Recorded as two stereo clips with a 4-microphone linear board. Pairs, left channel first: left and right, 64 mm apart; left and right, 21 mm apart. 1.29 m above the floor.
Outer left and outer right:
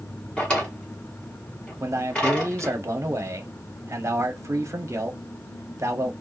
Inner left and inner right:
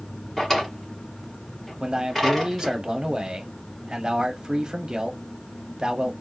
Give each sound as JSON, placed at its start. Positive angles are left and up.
{"t": 0.4, "sound": "a drawer", "side_deg": 20, "distance_m": 1.7}
{"t": 1.8, "sound": "a man speaking", "side_deg": -50, "distance_m": 0.8}